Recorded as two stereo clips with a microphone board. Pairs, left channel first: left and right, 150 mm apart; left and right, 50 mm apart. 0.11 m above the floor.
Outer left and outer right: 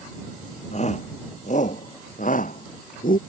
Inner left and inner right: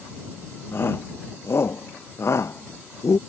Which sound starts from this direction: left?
A shout, at 0.7 s.